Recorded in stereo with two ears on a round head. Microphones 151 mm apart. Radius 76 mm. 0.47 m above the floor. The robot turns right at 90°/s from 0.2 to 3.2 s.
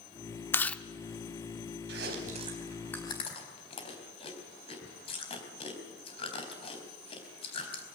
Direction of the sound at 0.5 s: 15° left (ahead or behind).